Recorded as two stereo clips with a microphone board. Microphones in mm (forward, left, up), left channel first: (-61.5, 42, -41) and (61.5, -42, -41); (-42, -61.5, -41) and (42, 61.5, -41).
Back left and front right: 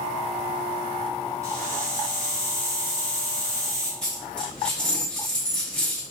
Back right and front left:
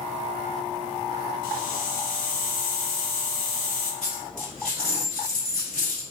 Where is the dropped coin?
130° right, 2 m.